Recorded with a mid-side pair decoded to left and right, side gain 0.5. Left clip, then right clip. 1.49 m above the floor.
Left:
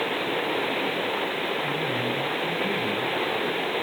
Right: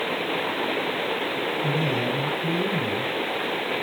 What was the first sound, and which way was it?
A man speaking, 65° right.